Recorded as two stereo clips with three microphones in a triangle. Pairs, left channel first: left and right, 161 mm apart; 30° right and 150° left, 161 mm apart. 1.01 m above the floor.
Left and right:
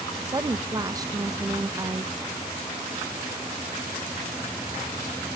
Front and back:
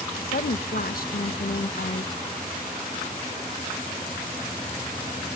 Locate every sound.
0.2 s a woman speaking: 20° right, 0.6 m